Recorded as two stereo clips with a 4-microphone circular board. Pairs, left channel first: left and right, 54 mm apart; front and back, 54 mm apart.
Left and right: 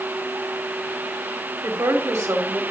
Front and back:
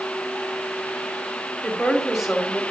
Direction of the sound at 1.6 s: 90° right.